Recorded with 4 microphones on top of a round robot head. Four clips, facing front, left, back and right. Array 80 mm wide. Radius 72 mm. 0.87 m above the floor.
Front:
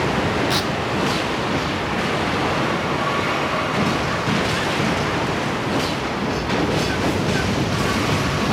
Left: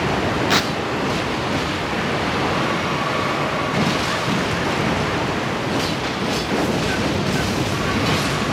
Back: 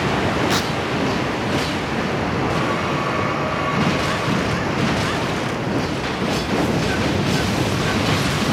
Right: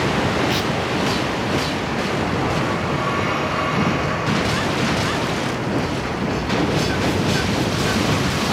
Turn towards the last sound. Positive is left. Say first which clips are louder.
# left 2 dB, back 1 dB
turn(degrees=110)